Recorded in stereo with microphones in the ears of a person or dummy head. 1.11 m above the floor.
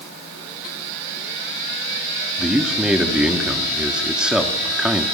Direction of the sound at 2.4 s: Centre (ahead or behind).